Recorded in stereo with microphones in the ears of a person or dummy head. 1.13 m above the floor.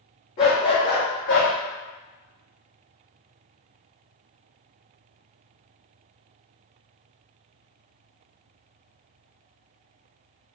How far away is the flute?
I don't hear a flute.